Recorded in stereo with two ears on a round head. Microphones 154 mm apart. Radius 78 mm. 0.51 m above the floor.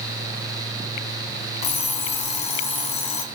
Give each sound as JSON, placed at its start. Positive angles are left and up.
{"t": 1.6, "sound": "an alarm clock", "side_deg": 40, "distance_m": 2.0}